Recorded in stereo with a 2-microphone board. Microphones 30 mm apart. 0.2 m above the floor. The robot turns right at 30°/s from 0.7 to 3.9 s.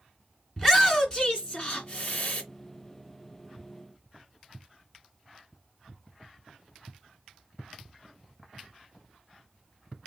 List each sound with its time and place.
0.6 s a shout: 15° left (ahead or behind), 2 m; by 2.4 s 55° left (ahead or behind), 2 m